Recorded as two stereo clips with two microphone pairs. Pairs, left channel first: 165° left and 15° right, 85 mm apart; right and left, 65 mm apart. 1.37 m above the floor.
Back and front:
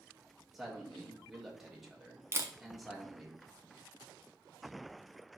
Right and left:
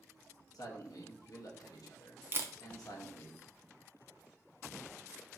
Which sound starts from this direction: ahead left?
A camera shutter, at 2.3 s.